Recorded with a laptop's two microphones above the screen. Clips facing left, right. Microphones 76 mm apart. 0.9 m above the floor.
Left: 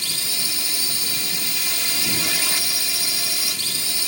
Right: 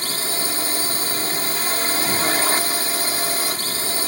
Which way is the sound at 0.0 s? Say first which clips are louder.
Right 6 dB; 45° right (ahead or behind).